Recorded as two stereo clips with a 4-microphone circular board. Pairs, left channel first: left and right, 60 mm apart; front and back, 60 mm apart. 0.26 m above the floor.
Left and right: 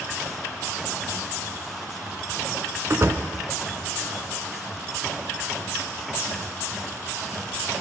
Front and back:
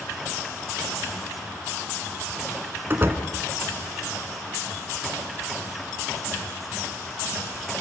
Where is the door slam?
130° right, 2 m.